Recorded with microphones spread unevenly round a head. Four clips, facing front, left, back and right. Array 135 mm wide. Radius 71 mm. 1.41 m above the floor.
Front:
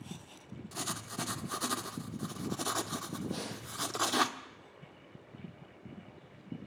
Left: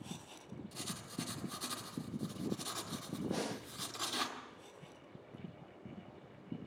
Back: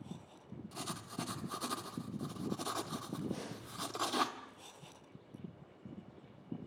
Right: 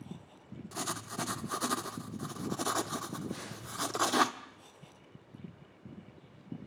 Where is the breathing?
75° left, 3 m.